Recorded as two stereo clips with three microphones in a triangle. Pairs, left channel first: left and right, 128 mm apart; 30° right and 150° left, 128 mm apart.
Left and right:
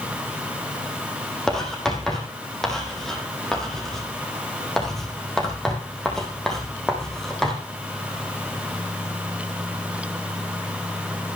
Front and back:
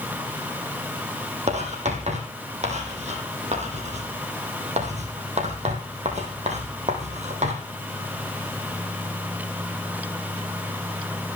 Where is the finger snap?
I don't hear a finger snap.